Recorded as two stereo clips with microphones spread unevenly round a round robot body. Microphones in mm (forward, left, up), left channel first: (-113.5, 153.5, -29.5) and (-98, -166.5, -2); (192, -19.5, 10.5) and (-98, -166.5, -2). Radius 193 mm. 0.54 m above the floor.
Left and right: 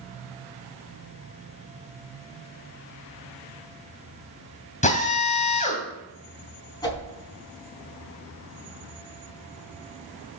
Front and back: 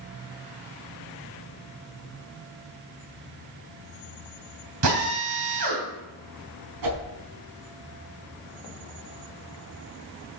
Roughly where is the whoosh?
Behind.